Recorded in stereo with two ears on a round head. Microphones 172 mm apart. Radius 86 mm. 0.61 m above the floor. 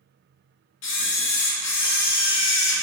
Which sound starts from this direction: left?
A camera shutter, at 0.8 s.